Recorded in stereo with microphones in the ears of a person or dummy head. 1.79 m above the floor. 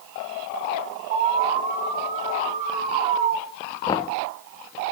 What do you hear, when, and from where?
1.1 s an alarm: 35° right (ahead or behind), 3 m
3.9 s knocking: 25° left (ahead or behind), 1.5 m